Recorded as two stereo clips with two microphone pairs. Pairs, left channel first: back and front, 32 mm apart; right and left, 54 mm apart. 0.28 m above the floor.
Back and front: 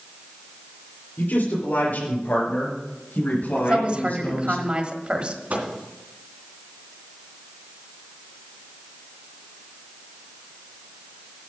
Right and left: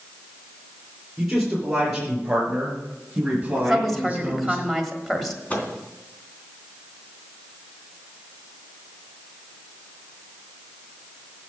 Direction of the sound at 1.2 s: 175° left.